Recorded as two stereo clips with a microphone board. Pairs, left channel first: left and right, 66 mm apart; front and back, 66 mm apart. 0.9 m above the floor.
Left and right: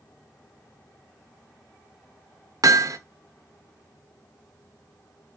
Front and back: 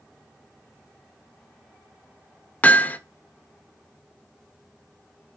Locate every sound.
2.6 s hammering: 65° right, 0.9 m